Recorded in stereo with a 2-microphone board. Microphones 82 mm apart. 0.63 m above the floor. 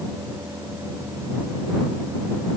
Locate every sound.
Only background noise.